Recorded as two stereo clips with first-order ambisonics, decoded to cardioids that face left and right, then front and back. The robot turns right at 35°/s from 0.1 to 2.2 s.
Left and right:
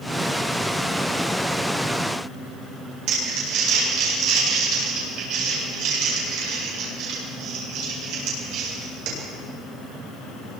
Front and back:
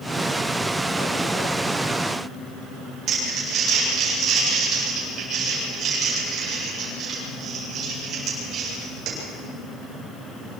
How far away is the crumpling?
About 8.5 m.